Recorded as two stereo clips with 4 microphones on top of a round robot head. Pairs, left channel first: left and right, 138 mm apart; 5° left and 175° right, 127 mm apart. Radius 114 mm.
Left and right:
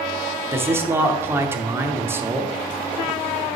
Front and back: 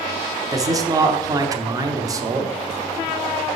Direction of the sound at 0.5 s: 145° right.